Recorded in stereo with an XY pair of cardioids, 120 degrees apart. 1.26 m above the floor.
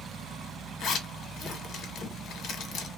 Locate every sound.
0.8 s a zipper: 65° left, 1.0 m